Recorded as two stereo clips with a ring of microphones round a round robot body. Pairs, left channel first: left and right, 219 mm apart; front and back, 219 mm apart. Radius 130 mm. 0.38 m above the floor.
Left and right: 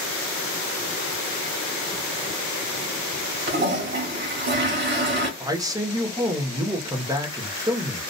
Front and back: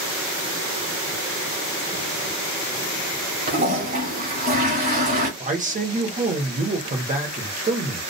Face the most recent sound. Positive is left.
turn(degrees=-155)